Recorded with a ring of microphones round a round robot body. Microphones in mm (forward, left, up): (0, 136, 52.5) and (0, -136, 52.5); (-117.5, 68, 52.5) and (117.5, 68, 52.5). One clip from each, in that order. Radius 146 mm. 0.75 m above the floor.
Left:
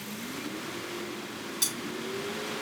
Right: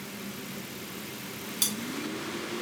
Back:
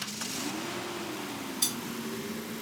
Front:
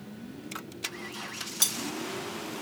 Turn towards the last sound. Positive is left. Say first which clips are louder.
# right 1 dB, front 4 dB
turn(degrees=-10)